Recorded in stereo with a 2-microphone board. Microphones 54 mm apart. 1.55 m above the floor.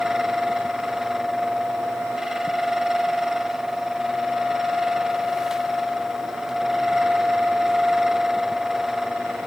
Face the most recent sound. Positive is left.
No sound to turn to.